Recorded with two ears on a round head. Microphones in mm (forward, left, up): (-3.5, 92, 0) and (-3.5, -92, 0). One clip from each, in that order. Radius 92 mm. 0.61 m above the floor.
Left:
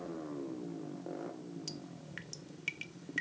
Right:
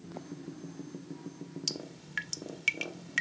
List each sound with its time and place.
1.7 s dripping: 40° right (ahead or behind)